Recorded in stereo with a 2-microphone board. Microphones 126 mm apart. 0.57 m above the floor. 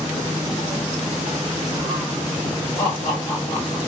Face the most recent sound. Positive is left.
turn(degrees=10)  # may be behind; listen again after turning